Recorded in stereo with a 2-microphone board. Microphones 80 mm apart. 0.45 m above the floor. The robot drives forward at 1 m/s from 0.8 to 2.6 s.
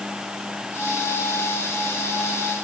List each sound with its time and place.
Only background noise.